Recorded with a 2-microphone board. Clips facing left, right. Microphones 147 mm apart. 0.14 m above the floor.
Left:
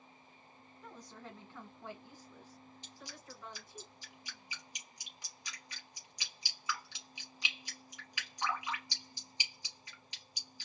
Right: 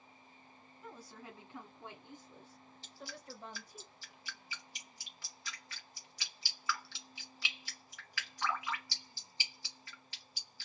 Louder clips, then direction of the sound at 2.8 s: Right 4 dB; 20° left (ahead or behind).